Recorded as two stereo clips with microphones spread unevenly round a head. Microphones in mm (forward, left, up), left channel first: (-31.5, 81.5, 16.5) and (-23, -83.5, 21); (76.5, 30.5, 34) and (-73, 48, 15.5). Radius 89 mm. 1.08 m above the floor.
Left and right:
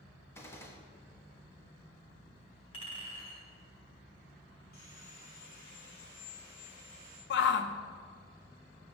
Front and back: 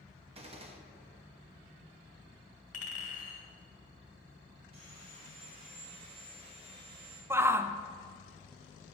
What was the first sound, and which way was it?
A gunshot, 160° left.